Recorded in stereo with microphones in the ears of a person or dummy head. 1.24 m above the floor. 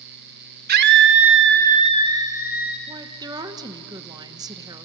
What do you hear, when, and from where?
0.7 s a scream: 50° right (ahead or behind), 1.4 m; by 2.8 s 10° right (ahead or behind), 2.5 m
2.9 s a woman speaking: 20° right (ahead or behind), 1.4 m